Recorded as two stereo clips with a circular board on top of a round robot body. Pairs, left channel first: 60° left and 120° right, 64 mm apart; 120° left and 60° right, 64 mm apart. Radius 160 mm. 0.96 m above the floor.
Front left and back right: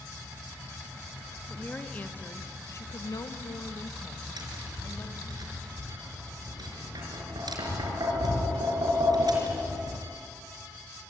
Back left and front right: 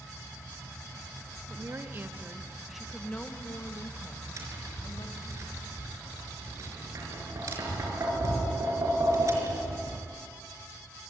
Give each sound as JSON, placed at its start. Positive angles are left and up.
{"t": 1.5, "sound": "a woman speaking", "azimuth_deg": -15, "distance_m": 2.5}
{"t": 4.4, "sound": "tapping", "azimuth_deg": -105, "distance_m": 5.0}